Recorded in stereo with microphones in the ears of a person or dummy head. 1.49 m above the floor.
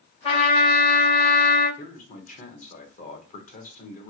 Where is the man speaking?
40° left (ahead or behind), 1.1 m.